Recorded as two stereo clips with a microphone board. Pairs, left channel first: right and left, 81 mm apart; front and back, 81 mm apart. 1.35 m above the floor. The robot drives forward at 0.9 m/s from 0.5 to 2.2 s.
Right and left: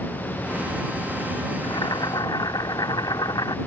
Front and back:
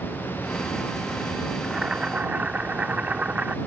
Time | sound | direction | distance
1.6 | boiling | 95° right | ?